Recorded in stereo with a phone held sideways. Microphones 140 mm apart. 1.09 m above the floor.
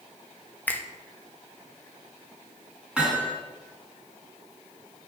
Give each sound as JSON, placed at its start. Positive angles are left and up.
{"t": 0.7, "sound": "a finger snap", "side_deg": 15, "distance_m": 0.8}
{"t": 3.0, "sound": "hammering", "side_deg": -10, "distance_m": 3.5}